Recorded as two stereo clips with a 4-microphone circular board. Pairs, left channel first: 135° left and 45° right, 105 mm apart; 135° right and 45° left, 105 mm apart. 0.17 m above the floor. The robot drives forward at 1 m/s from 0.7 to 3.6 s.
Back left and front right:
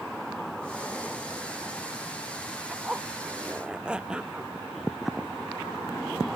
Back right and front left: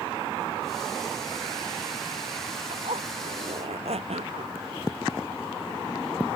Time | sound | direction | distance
2.7 | a zipper | 30° left | ?